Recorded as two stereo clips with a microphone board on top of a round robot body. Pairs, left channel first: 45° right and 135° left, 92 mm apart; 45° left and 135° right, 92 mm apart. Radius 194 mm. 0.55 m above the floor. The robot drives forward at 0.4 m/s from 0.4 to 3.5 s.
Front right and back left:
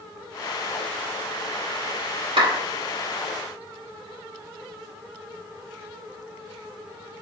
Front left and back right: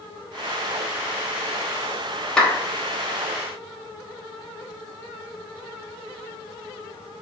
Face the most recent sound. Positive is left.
turn(degrees=130)